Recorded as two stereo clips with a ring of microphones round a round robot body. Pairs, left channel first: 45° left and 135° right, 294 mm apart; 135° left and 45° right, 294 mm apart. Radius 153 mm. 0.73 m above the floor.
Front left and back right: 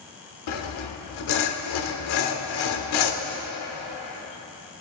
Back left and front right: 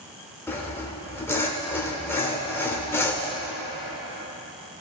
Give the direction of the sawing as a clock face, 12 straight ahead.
10 o'clock.